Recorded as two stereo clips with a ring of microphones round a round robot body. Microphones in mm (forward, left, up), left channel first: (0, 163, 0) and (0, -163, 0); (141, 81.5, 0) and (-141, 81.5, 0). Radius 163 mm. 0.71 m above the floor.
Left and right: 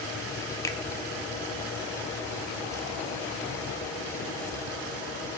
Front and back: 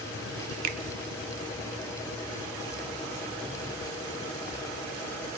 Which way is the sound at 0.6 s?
170° left.